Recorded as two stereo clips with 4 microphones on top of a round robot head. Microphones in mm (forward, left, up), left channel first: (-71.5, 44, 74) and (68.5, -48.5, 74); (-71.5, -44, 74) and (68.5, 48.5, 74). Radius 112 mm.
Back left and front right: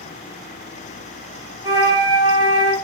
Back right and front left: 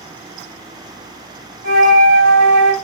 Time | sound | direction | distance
1.6 | a flute | 25° left | 1.4 m